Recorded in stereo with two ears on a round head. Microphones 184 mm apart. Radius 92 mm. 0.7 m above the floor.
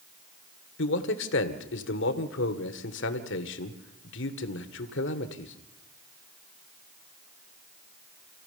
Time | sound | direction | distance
0.8 | a man speaking | 60° left (ahead or behind) | 1.9 m